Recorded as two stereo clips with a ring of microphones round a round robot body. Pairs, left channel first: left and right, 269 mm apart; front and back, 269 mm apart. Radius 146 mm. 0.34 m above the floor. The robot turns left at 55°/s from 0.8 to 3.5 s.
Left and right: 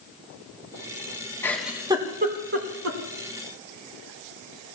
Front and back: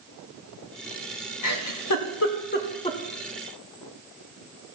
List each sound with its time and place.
1.4 s a giggle: 10° left, 2.5 m; by 3.0 s 75° right, 2.5 m